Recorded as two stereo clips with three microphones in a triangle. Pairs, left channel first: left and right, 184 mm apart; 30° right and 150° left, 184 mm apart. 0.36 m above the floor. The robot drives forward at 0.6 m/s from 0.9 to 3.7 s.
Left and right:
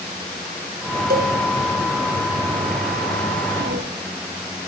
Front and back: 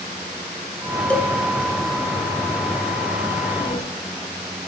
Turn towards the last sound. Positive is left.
turn(degrees=-90)